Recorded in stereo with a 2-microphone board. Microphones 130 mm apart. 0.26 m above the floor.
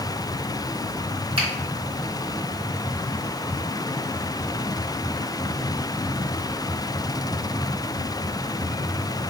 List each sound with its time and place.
1.4 s a finger snap: 45° right (ahead or behind), 1.5 m